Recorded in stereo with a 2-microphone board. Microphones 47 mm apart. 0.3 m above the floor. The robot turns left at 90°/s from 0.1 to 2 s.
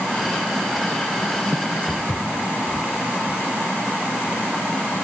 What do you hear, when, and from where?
1.9 s footsteps: 30° left (ahead or behind), 1.4 m; by 5.0 s 10° left (ahead or behind), 3.5 m